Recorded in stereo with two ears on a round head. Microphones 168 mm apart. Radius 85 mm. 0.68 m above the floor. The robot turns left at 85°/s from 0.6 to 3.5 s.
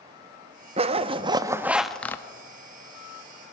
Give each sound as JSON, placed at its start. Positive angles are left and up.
{"t": 0.8, "sound": "a zipper", "azimuth_deg": -85, "distance_m": 0.5}